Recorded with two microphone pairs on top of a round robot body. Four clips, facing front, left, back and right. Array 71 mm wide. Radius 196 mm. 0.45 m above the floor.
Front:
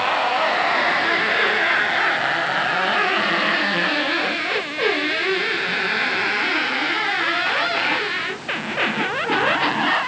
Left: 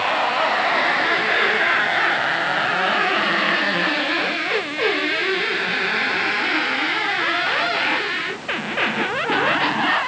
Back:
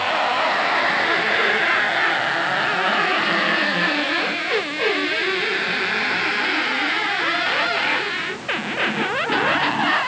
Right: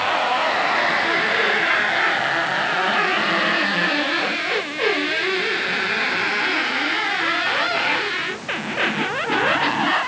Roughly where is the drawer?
No drawer in this recording.